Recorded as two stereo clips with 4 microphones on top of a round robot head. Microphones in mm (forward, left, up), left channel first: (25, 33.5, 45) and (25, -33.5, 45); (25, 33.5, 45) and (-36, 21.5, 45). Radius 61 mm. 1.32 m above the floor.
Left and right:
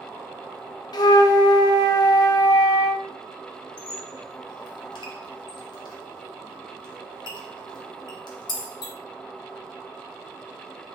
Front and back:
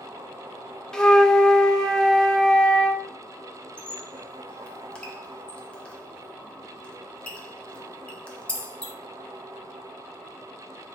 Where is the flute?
90° left, 0.6 m.